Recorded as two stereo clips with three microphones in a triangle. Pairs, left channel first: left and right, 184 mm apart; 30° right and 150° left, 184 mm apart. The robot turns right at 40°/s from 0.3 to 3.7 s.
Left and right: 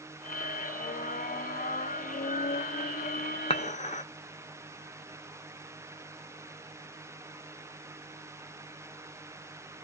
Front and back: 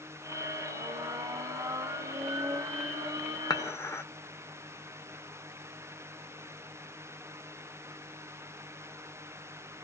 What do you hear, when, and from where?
3.5 s dishes clattering: 35° left, 0.6 m; by 4.0 s 40° left, 0.6 m